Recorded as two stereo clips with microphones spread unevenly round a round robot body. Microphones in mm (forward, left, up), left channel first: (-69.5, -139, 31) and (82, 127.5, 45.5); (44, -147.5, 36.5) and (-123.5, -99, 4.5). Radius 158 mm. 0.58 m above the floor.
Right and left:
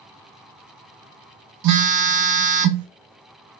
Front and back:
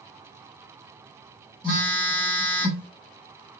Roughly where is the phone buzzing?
Left.